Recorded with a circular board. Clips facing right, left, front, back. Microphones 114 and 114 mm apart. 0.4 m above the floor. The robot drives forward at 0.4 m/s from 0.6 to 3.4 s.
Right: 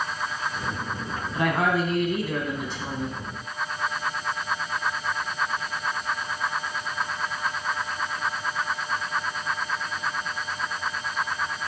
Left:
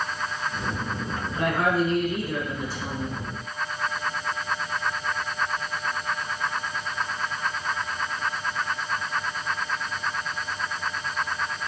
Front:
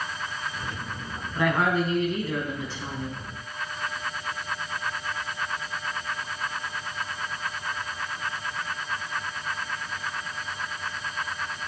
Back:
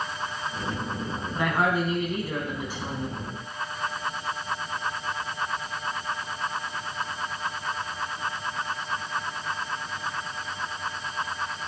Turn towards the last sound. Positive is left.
turn(degrees=-105)